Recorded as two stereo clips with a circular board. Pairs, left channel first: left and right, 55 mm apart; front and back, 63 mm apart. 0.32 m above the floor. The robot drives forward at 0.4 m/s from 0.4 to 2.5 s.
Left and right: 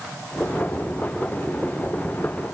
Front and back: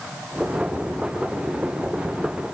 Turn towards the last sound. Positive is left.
No sound to turn to.